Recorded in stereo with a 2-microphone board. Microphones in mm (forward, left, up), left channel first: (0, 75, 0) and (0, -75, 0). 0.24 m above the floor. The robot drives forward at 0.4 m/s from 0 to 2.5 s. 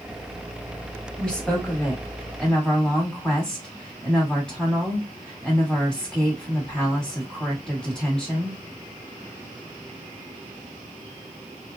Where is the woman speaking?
5° left (ahead or behind), 1.2 m.